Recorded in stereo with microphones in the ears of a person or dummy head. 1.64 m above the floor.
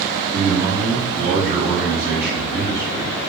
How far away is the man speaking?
About 1.4 m.